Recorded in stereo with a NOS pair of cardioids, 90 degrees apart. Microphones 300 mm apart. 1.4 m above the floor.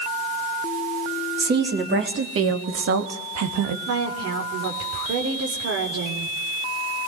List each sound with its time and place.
1.4 s a woman speaking: 35° right, 3.5 m; by 3.8 s 70° right, 2.5 m
3.9 s a woman speaking: 55° right, 4 m